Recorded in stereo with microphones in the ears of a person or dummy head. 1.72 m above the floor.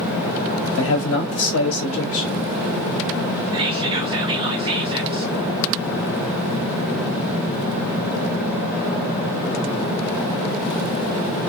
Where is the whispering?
30° right (ahead or behind), 0.5 m.